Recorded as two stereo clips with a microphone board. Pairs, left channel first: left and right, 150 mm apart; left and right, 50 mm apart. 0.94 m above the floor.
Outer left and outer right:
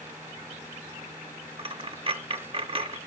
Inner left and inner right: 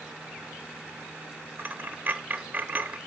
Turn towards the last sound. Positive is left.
turn(degrees=-35)  # may be behind; listen again after turning